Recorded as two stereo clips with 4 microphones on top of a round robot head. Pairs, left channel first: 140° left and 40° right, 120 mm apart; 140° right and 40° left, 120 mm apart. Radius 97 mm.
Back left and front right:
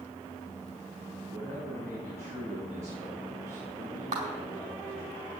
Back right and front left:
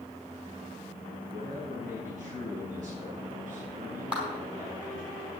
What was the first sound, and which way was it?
A man speaking, 25° left.